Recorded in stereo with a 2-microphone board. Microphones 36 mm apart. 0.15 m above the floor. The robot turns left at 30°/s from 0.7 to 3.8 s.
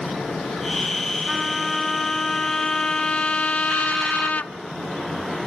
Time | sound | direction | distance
1.3 | a trumpet | 175° right | 0.6 m